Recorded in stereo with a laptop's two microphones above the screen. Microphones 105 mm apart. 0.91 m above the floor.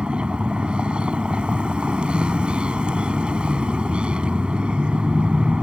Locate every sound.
0.0 s a vehicle: 10° right (ahead or behind)